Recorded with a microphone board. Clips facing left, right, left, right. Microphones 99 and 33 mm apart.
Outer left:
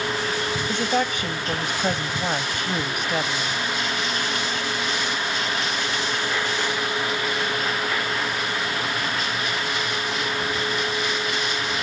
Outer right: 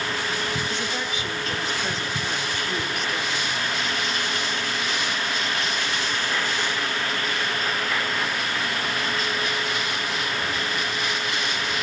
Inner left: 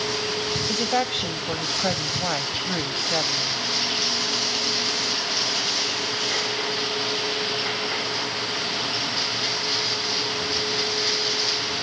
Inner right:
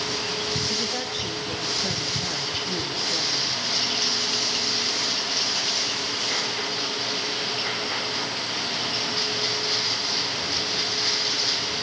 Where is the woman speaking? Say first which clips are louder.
Outer left 6 dB, inner left 5 dB; 60° left (ahead or behind), 1.8 m.